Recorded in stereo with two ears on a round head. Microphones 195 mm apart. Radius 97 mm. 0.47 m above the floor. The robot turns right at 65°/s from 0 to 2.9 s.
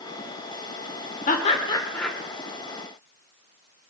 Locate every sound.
1.3 s laughter: 35° left (ahead or behind), 1.4 m; by 2.1 s centre (ahead or behind), 1.4 m